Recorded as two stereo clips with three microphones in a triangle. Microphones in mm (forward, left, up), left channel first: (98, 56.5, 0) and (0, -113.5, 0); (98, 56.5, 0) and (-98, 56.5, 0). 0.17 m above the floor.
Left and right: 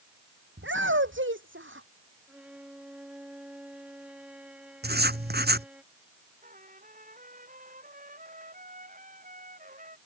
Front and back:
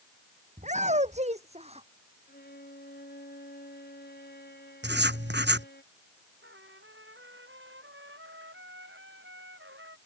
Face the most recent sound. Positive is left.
turn(degrees=-165)